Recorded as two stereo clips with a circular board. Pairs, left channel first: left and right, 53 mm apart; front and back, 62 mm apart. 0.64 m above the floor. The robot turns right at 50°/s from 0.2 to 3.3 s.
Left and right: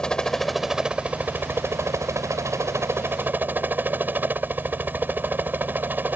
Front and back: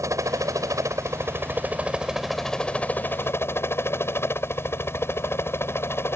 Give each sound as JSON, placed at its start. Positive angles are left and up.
{"t": 0.0, "sound": "a helicopter", "azimuth_deg": 165}